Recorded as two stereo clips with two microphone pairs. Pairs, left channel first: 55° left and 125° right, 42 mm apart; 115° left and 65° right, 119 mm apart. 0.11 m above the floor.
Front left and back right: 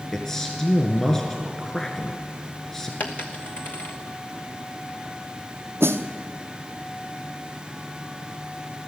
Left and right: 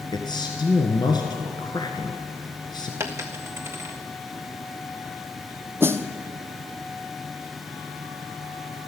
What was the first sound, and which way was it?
A man speaking, 125° left.